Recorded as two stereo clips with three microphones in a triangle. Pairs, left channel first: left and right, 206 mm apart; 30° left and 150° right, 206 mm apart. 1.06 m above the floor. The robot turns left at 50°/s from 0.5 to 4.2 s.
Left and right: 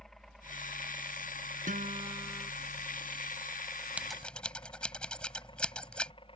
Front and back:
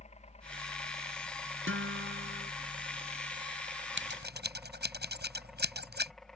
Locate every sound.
0.0 s a helicopter: 5° left; by 6.4 s 115° left
1.7 s a guitar: 140° right; by 2.5 s straight behind
4.0 s scissors: 175° right; by 6.1 s 175° left